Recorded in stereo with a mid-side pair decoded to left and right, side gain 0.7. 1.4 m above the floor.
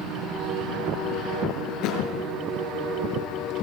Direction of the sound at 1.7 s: 60° left.